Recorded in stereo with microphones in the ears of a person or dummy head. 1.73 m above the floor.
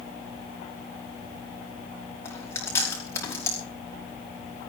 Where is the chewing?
15° left (ahead or behind), 5 m.